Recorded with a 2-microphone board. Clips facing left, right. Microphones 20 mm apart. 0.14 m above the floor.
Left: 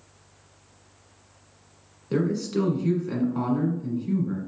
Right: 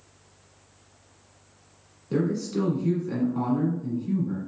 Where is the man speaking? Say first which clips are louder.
Left 1 dB; 25° left (ahead or behind), 1.5 m.